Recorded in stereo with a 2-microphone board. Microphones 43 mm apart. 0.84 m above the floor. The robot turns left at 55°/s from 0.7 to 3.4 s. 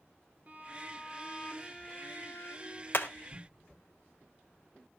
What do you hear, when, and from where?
0.5 s a violin: 135° right, 2 m; by 2.8 s 105° left, 2 m
2.9 s hammering: 60° left (ahead or behind), 1.6 m; by 3.1 s 50° left (ahead or behind), 1.6 m